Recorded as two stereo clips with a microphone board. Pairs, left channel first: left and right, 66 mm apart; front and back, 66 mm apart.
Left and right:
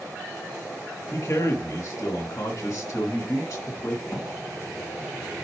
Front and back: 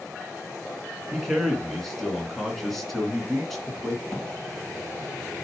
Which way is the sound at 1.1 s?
90° left.